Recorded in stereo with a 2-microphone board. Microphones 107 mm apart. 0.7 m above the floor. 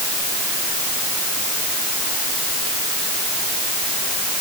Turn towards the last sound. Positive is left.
No sound to turn to.